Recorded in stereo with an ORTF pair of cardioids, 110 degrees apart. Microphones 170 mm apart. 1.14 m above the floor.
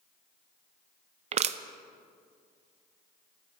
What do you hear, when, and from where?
1.3 s crushing: 40° right, 0.5 m